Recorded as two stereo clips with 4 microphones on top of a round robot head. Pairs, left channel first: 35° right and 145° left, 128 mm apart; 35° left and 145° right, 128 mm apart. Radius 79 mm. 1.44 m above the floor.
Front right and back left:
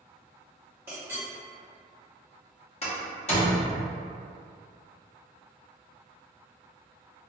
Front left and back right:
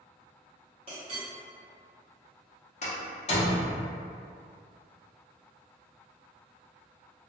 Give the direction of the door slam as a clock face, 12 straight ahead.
12 o'clock.